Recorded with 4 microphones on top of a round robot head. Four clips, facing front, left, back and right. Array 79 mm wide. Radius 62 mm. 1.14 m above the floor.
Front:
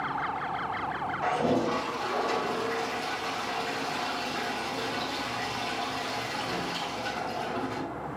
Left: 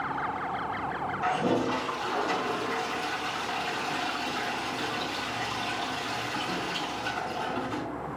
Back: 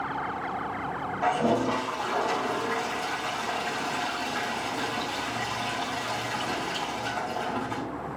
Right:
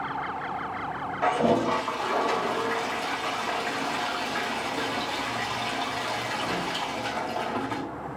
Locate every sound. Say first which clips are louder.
1.2 s a toilet flushing: right 5 dB, back 2 dB; 95° right, 1.7 m